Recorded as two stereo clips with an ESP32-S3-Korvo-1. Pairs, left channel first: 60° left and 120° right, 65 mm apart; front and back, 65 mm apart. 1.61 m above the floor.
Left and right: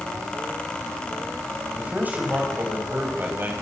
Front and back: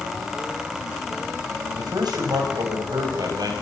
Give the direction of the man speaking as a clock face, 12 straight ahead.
6 o'clock.